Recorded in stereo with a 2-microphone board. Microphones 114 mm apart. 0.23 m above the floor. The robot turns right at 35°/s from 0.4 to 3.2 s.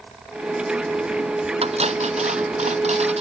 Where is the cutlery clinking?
120° right; by 3.2 s 65° right.